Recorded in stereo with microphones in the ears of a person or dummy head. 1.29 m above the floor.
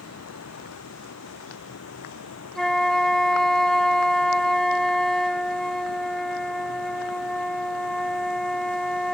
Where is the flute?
5° right (ahead or behind).